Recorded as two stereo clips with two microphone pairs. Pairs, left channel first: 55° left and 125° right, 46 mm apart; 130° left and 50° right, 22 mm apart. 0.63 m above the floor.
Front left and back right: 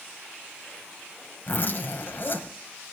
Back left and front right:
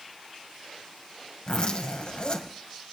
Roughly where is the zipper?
Left.